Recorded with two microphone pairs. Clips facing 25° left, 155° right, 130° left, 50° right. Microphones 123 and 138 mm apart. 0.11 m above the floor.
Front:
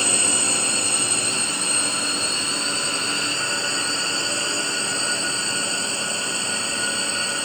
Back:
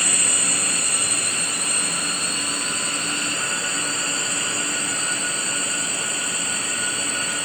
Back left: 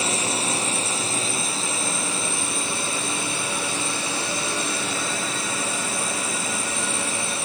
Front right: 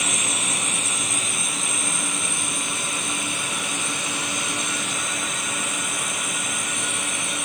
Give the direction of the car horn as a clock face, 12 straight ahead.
I don't hear a car horn.